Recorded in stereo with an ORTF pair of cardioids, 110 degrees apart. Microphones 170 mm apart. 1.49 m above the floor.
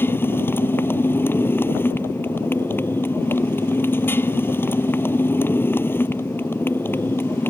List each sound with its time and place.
0.0 s a motorcycle: 10° left